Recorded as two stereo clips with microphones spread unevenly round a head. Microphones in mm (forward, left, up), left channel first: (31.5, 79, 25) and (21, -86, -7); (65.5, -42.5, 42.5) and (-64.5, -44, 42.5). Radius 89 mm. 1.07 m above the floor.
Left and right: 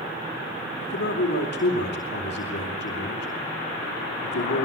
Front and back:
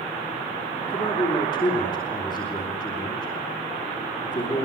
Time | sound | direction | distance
0.8 | a man speaking | 65° left | 4 m